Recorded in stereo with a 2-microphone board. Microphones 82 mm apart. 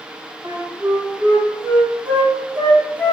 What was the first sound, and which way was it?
A flute, 70° right (ahead or behind).